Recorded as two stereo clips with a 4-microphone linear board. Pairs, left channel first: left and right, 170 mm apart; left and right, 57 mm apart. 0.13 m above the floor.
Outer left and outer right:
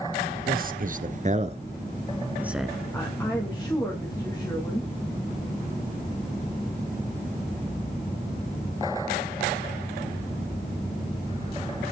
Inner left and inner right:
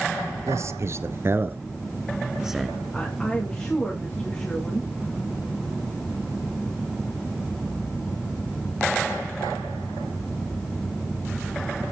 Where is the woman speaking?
10° left (ahead or behind), 8 m.